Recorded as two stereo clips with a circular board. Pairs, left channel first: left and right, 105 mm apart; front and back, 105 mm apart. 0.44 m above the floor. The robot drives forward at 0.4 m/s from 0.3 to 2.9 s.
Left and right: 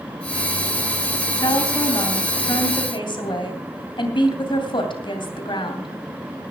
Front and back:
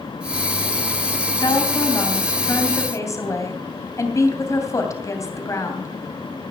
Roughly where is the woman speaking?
Ahead left.